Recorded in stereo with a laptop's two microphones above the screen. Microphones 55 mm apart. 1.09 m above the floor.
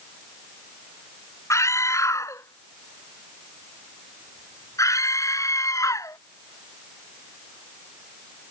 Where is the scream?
65° left (ahead or behind); by 6.2 s 75° left (ahead or behind).